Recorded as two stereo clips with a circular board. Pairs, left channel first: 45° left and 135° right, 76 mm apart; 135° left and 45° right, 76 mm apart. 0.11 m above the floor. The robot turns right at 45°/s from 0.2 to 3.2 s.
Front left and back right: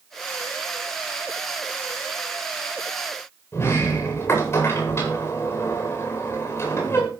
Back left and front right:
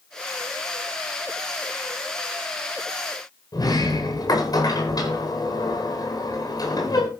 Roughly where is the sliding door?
Left.